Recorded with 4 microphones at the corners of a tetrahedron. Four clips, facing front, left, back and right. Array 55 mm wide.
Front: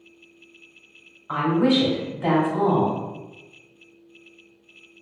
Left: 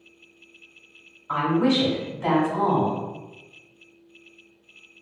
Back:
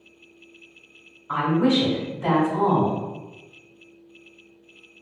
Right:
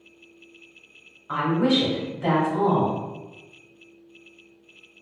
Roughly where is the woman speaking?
Ahead.